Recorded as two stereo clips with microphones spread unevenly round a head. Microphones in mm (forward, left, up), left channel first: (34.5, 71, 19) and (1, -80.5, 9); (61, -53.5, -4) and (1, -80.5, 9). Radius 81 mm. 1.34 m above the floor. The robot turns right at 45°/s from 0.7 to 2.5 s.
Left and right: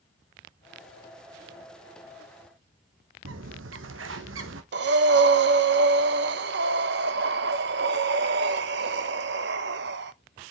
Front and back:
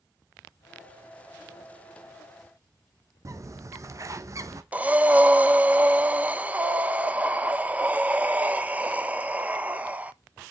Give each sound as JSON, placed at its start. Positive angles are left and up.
{"t": 3.2, "sound": "a bird", "azimuth_deg": -120, "distance_m": 1.0}
{"t": 4.7, "sound": "breathing", "azimuth_deg": -95, "distance_m": 0.8}